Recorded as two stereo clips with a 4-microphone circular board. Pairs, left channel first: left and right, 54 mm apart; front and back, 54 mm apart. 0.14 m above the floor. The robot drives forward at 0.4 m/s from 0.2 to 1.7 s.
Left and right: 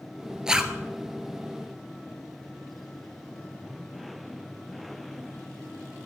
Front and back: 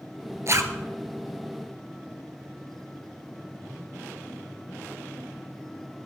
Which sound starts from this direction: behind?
A zipper, at 0.5 s.